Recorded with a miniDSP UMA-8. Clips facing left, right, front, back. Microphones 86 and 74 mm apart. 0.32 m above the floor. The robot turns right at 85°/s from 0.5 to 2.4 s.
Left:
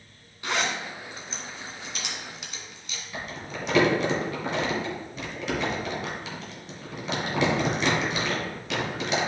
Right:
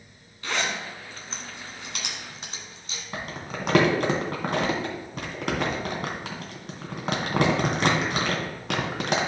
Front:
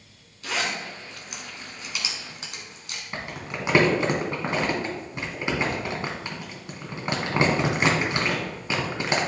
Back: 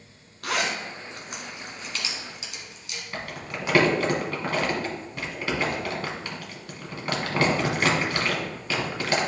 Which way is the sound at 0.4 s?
160° left.